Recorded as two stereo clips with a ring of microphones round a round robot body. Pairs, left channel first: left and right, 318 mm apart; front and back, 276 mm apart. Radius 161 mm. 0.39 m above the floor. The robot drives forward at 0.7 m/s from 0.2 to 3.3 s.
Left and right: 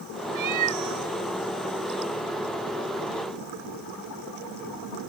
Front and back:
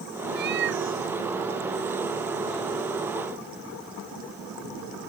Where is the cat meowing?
120° right; by 1.1 s 130° right.